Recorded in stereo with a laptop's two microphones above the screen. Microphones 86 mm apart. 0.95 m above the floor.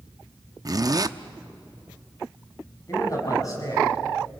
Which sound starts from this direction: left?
A man speaking, at 2.9 s.